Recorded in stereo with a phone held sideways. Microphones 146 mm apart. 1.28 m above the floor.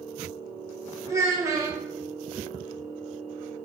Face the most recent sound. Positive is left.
turn(degrees=-20)  # may be behind; listen again after turning